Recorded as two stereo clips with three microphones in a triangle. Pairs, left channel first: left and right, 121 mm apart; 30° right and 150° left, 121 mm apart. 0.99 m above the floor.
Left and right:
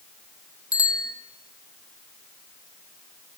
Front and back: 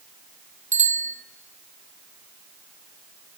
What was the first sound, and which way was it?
A bicycle bell, 150° left.